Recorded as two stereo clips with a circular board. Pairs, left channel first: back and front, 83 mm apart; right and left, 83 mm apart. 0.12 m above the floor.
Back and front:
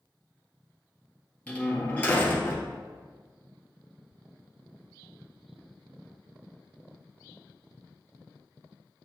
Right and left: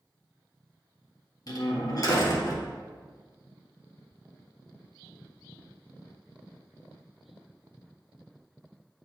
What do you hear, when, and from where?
1.5 s a door slam: 110° right, 1.7 m